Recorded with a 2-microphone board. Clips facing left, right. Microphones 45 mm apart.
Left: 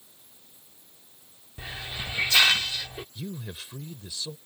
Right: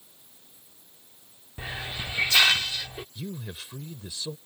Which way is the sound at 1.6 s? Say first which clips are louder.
Right 2 dB; 20° right (ahead or behind).